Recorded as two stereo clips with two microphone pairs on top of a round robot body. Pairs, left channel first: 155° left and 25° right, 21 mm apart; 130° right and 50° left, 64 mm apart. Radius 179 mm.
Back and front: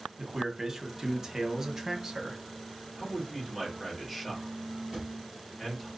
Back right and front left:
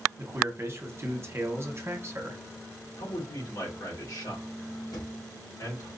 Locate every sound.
0.2 s a man speaking: 40° left, 1.3 m
3.0 s a man speaking: 120° right, 3 m
4.9 s a drawer: 110° right, 3 m